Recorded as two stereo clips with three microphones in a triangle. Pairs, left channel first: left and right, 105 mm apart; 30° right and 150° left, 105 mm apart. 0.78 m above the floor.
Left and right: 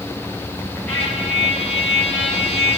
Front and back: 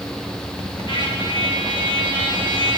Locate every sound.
0.9 s a trumpet: 15° left, 7 m